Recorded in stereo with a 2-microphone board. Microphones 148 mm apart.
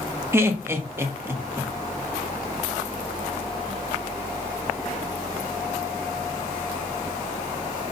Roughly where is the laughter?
Centre.